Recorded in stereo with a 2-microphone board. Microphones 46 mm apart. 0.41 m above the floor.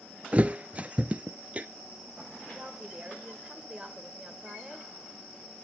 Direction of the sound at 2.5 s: 20° right (ahead or behind).